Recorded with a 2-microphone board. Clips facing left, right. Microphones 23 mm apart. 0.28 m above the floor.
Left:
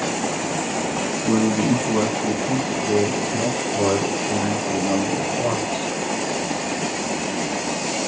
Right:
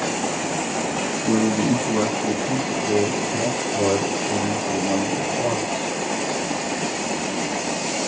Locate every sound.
1.2 s a man speaking: 20° left (ahead or behind), 2 m; by 5.9 s 60° left (ahead or behind), 4 m